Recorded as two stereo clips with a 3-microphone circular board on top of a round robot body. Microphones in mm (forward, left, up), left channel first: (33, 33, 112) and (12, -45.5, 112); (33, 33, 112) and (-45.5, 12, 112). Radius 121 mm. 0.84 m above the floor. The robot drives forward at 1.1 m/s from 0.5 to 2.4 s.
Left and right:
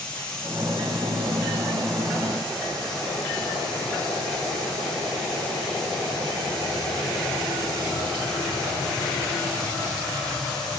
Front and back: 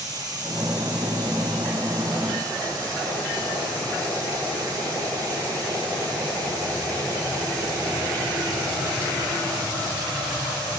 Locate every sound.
0.0 s running water: 150° left, 5 m; by 10.8 s 160° left, 7 m